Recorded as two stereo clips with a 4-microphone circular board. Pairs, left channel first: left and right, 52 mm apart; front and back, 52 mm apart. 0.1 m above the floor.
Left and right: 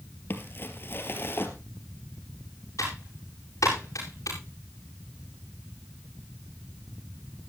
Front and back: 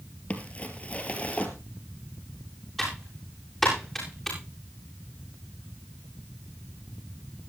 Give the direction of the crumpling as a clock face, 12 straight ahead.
10 o'clock.